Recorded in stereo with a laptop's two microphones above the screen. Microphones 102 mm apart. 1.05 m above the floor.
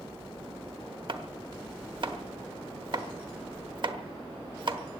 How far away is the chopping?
About 1.1 m.